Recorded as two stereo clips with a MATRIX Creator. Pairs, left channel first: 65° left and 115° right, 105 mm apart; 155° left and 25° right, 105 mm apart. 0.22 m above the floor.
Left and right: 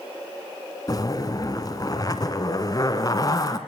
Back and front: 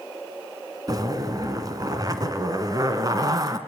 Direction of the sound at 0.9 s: 20° left.